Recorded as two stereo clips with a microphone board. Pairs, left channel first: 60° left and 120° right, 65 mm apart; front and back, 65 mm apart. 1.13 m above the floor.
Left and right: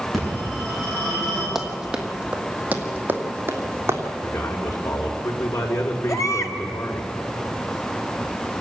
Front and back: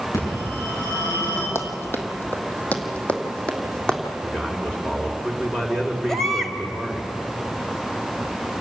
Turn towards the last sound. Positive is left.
turn(degrees=85)